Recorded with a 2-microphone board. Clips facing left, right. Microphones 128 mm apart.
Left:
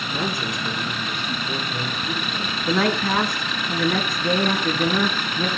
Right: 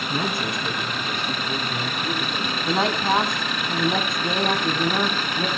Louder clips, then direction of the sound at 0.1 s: Even; 65° right (ahead or behind).